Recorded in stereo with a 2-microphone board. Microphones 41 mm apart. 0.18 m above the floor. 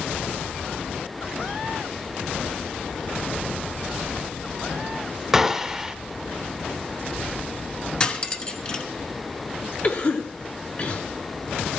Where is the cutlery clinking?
25° left (ahead or behind), 1.1 m.